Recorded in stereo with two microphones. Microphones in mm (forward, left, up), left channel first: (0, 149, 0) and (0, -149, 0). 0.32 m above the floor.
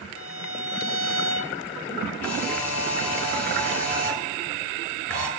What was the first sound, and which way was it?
A violin, 45° right (ahead or behind).